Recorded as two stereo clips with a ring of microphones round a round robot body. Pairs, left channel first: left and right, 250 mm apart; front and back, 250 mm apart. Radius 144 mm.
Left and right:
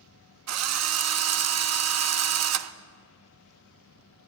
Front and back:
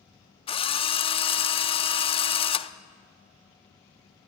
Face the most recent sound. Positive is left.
turn(degrees=-70)